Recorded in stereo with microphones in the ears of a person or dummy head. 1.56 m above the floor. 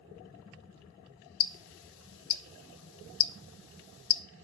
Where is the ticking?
70° left (ahead or behind), 0.7 m.